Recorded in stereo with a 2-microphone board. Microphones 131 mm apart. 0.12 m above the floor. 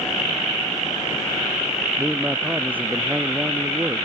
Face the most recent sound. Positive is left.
turn(degrees=-20)  # may be behind; listen again after turning